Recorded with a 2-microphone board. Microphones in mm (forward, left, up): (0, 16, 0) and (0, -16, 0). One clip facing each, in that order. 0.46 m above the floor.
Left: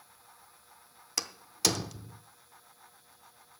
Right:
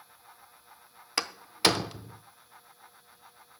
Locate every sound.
1.2 s a door slam: 35° right (ahead or behind), 0.6 m